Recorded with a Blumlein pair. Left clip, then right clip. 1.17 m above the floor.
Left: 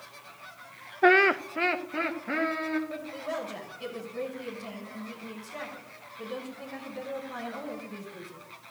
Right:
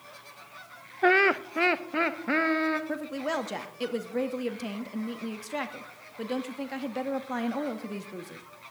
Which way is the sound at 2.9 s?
35° right.